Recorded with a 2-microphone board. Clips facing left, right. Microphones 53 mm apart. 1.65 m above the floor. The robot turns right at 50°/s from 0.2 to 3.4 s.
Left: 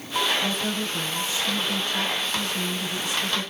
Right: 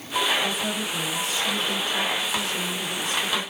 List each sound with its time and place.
0.4 s a woman speaking: straight behind, 1.8 m; by 3.4 s 25° right, 1.8 m